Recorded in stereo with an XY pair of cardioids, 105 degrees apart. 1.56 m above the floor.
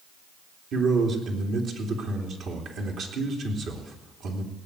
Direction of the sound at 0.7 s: 60° right.